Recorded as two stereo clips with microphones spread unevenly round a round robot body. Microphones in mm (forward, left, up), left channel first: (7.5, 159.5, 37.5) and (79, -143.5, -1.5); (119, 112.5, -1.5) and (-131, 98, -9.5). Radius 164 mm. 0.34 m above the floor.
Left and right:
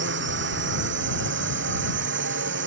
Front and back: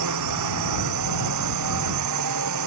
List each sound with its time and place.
0.0 s a drone: 135° right